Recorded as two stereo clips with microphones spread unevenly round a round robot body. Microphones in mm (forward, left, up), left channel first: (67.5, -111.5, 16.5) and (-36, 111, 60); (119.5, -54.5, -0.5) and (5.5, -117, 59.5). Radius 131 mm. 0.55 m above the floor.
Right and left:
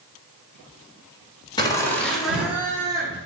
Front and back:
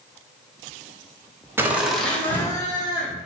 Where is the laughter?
50° right, 1.1 m; by 3.2 s 35° left, 1.7 m.